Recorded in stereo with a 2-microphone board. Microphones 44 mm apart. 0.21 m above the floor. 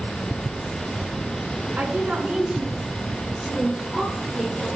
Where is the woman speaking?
35° right (ahead or behind), 1.9 m; by 4.7 s 5° left (ahead or behind), 4 m.